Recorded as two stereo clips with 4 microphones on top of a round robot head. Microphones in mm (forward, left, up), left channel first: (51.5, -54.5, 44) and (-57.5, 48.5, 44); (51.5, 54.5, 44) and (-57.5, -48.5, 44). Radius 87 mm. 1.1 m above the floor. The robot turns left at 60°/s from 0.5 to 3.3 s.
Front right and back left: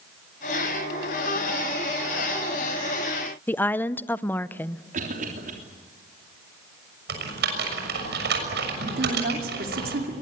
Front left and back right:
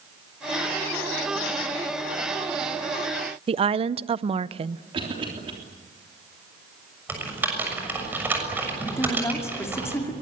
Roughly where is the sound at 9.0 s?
Behind left.